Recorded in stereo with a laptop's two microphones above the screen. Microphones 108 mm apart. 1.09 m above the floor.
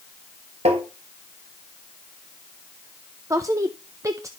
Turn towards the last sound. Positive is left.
turn(degrees=-30)  # may be behind; listen again after turning